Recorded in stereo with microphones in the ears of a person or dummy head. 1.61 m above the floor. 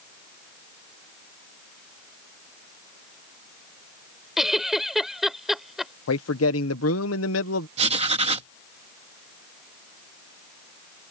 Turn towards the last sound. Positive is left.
turn(degrees=-40)  # may be behind; listen again after turning